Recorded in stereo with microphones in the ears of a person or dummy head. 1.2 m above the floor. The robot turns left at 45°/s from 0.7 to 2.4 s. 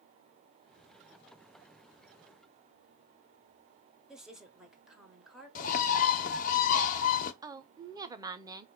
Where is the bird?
45° left (ahead or behind), 0.8 m.